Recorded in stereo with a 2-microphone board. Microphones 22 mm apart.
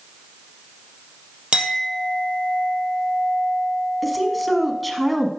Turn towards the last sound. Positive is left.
turn(degrees=5)  # may be behind; listen again after turning